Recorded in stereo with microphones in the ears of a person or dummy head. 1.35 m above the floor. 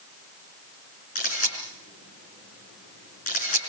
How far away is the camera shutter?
About 5.5 m.